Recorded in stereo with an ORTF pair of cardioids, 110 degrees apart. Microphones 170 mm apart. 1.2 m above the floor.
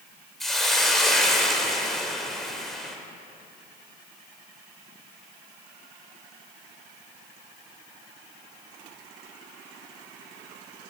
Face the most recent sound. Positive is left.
turn(degrees=0)